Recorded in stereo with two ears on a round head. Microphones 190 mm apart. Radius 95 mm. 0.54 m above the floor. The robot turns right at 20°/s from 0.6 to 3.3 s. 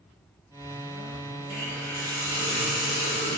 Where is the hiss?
5° left, 0.6 m; by 3.4 s 40° left, 0.6 m.